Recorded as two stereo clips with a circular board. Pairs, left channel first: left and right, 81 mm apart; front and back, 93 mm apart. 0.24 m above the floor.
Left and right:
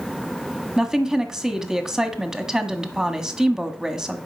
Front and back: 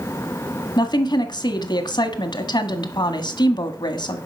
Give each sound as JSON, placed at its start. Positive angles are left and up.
{"t": 0.8, "sound": "a woman speaking", "azimuth_deg": -10, "distance_m": 1.5}